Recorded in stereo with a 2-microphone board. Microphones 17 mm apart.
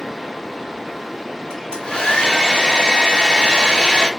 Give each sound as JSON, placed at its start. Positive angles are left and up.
{"t": 1.5, "sound": "a hair dryer", "side_deg": 45, "distance_m": 3.5}